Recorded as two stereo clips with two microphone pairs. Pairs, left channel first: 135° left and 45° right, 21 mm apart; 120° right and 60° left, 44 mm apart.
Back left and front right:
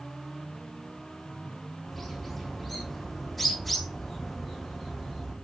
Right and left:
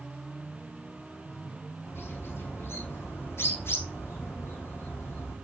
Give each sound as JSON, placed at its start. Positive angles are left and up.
{"t": 1.9, "sound": "a bird", "azimuth_deg": -135, "distance_m": 5.5}